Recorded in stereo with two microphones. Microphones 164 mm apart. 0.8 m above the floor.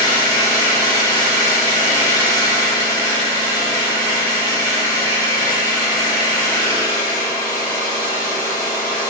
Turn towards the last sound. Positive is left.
turn(degrees=25)  # may be behind; listen again after turning